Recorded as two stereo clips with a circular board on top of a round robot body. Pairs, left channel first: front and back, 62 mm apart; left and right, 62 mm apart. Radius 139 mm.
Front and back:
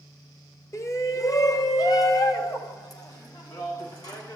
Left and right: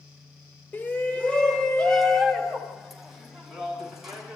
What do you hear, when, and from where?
0.7 s a shout: 30° left, 1.9 m; by 4.4 s 5° right, 5.5 m